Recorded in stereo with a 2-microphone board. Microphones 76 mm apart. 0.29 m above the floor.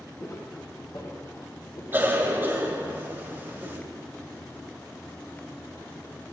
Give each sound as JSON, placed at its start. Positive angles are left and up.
{"t": 0.2, "sound": "footsteps", "side_deg": 40, "distance_m": 3.5}
{"t": 1.9, "sound": "a cough", "side_deg": -25, "distance_m": 1.6}